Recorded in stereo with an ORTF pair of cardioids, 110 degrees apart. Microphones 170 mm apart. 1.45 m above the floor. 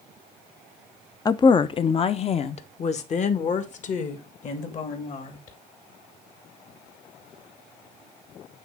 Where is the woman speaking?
25° left, 0.6 m; by 5.6 s 50° left, 3 m.